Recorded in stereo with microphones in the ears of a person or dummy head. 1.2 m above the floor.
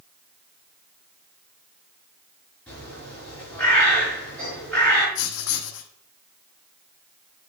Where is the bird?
10° left (ahead or behind), 5.5 m.